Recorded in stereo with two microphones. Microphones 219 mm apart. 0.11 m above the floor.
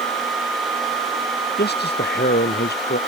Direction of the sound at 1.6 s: 45° left (ahead or behind).